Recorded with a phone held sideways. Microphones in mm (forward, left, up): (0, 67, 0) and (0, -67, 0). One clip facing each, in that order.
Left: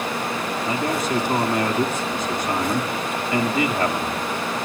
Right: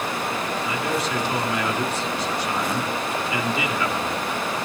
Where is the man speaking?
45° left (ahead or behind), 3 m.